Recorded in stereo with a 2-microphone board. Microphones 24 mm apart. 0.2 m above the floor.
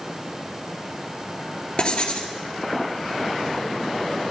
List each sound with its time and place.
1.8 s writing: 35° left (ahead or behind), 1.9 m